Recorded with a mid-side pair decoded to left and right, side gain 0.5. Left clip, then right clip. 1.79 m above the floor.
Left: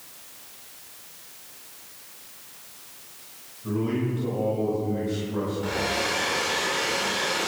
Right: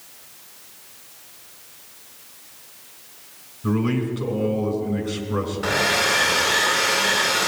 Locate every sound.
3.6 s a man speaking: 65° right, 3 m
5.6 s a hair dryer: 60° right, 1.7 m